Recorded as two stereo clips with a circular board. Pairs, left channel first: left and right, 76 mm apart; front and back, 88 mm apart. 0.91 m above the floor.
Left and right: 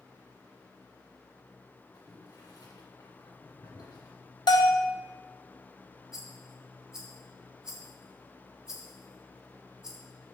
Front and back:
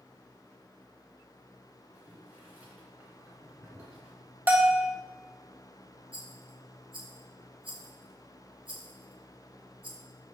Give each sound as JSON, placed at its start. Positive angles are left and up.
{"t": 1.9, "sound": "boiling", "azimuth_deg": 110, "distance_m": 2.0}
{"t": 4.5, "sound": "a bell", "azimuth_deg": 110, "distance_m": 0.8}
{"t": 6.1, "sound": "a rattle", "azimuth_deg": -170, "distance_m": 1.4}